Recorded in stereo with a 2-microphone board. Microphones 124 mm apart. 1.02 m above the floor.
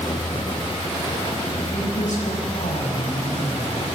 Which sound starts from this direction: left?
A woman speaking, at 1.7 s.